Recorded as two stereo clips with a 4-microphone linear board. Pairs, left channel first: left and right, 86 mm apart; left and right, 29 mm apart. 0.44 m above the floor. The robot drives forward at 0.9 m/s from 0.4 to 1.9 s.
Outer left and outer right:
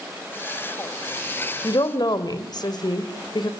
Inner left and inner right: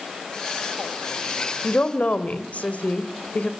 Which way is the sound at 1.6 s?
55° left (ahead or behind).